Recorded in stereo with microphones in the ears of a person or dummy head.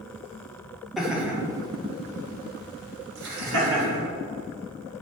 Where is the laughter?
Centre (ahead or behind), 1.7 m; by 4.0 s 75° right (ahead or behind), 2.5 m.